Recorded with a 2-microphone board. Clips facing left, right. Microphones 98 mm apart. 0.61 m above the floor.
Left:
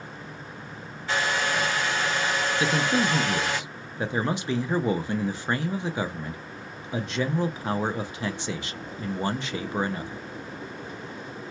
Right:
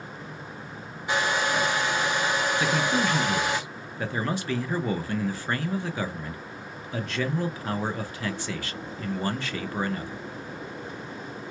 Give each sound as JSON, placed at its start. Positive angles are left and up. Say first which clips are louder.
{"t": 1.1, "sound": "a hair dryer", "louder": "right 1 dB", "side_deg": -15, "distance_m": 0.7}
{"t": 2.6, "sound": "a man speaking", "louder": "left 3 dB", "side_deg": 20, "distance_m": 0.6}